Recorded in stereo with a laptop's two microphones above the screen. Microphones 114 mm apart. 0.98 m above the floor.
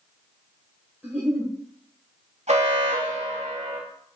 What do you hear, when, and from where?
1.0 s a giggle: 15° right (ahead or behind), 1.9 m
2.5 s an alarm: 80° right, 1.2 m